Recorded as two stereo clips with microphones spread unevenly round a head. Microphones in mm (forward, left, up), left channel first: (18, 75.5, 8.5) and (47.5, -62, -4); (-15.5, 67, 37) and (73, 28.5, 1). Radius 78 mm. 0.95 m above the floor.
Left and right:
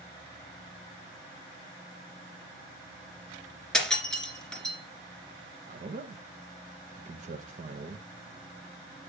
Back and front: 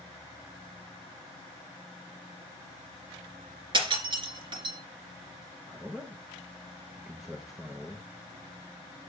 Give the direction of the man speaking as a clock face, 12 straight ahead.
3 o'clock.